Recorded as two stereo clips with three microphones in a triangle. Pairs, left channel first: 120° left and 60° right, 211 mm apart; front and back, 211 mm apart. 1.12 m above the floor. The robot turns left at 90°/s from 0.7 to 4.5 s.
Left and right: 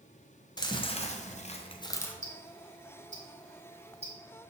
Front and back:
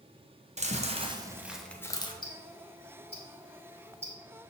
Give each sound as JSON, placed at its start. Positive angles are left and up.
{"t": 0.6, "sound": "chewing", "azimuth_deg": 170, "distance_m": 0.8}
{"t": 2.2, "sound": "ticking", "azimuth_deg": 45, "distance_m": 1.8}